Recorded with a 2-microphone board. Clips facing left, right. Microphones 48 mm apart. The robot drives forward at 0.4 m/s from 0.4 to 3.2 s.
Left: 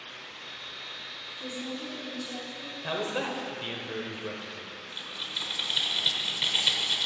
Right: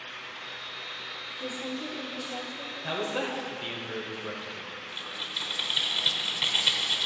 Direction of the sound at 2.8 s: 5° left (ahead or behind).